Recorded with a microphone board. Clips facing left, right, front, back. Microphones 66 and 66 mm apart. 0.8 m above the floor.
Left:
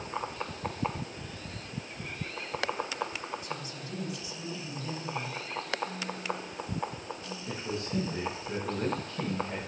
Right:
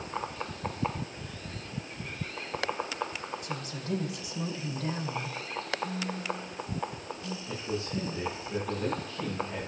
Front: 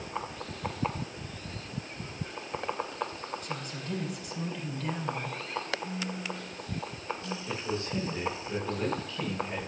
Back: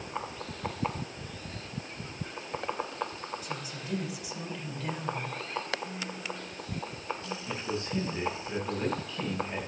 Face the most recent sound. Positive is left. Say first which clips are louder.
# even, even
turn(degrees=105)